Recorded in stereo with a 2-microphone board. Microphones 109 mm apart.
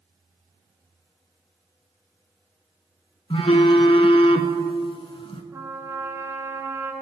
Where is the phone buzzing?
60° left (ahead or behind), 0.6 m.